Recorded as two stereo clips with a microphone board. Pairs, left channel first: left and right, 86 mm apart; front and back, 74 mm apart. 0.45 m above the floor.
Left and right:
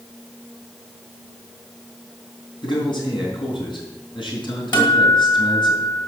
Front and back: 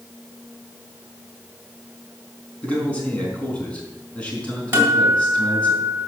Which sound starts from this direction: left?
A man speaking, at 2.6 s.